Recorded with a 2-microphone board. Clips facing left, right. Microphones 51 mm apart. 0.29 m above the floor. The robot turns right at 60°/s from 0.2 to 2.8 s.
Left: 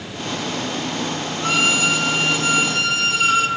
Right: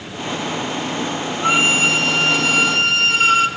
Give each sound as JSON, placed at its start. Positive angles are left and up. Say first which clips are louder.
{"t": 1.4, "sound": "a violin", "louder": "right 3 dB", "azimuth_deg": -155, "distance_m": 2.5}